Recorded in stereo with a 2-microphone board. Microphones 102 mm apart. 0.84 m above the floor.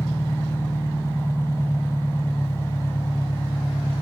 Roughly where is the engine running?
Left.